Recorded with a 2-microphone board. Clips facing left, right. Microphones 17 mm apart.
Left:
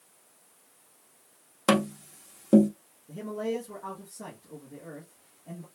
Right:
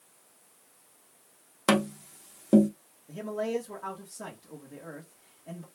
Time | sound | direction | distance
1.7 | tapping | 5° right (ahead or behind) | 0.8 m
3.1 | a man speaking | 30° right (ahead or behind) | 1.2 m